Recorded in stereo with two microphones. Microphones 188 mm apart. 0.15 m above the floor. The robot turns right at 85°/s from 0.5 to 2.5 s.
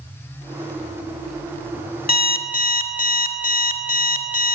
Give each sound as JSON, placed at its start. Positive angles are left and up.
{"t": 2.1, "sound": "an alarm clock", "azimuth_deg": 80, "distance_m": 0.7}